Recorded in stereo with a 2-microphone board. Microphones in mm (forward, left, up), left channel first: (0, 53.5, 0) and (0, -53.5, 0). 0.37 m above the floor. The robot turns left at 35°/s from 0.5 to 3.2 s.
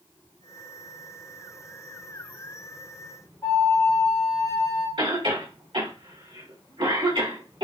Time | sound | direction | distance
3.4 | a flute | 30° left (ahead or behind) | 1.6 m
5.0 | a cough | 60° right (ahead or behind) | 2.5 m